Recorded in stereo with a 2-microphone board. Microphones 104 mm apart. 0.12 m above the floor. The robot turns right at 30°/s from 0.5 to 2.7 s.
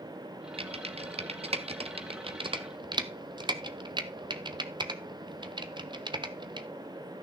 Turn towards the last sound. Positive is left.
turn(degrees=-50)  # may be behind; listen again after turning